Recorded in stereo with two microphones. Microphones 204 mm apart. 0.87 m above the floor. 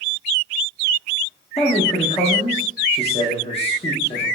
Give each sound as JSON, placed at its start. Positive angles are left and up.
{"t": 1.6, "sound": "a man speaking", "side_deg": 30, "distance_m": 0.6}